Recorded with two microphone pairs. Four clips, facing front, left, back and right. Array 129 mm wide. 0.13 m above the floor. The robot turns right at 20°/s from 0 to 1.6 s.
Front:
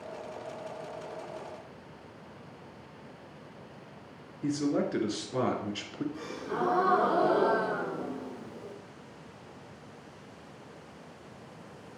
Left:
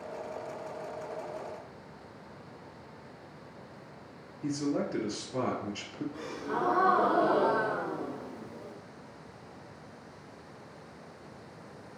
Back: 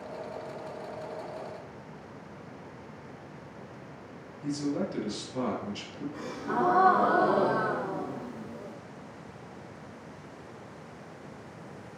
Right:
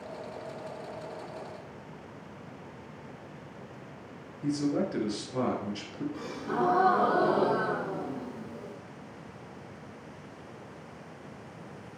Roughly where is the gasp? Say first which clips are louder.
Right 2 dB, back 8 dB; behind right.